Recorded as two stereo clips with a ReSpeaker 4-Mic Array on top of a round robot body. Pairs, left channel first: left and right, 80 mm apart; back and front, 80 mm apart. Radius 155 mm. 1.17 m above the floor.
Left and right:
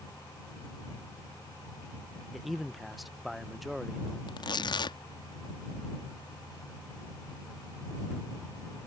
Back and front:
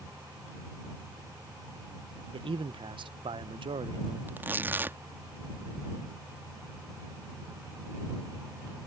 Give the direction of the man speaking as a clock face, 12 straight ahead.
12 o'clock.